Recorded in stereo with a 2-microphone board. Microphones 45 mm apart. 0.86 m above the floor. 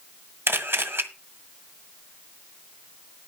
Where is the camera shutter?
60° right (ahead or behind), 1.6 m.